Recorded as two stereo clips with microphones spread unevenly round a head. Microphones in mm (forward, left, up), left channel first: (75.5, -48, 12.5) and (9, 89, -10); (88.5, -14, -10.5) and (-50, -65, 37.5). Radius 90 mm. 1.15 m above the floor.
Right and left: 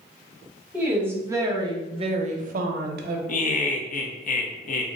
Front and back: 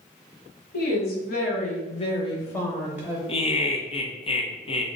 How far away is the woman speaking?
About 1.1 m.